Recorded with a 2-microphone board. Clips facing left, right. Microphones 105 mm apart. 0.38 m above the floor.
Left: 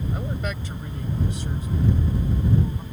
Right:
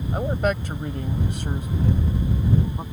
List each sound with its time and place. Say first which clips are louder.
0.1 s a man speaking: right 7 dB; 50° right (ahead or behind); by 2.8 s 60° right (ahead or behind)